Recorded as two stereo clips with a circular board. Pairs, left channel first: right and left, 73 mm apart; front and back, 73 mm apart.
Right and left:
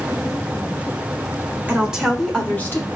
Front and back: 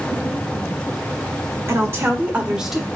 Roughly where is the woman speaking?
Behind left.